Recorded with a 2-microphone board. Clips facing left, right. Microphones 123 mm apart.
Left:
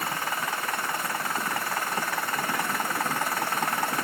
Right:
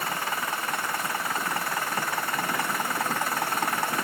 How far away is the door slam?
I don't hear a door slam.